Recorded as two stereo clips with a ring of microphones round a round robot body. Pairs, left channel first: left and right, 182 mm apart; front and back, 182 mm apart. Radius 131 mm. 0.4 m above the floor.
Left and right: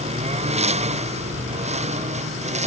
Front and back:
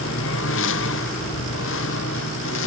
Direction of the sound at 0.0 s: 35° right.